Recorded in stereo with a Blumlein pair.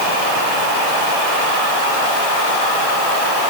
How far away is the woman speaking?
I don't hear a woman speaking.